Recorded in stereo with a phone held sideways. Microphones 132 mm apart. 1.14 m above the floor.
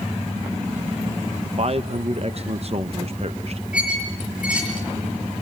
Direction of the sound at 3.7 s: 10° right (ahead or behind).